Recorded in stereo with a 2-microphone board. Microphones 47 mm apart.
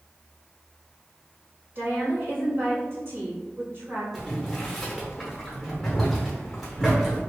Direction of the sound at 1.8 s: 50° right (ahead or behind).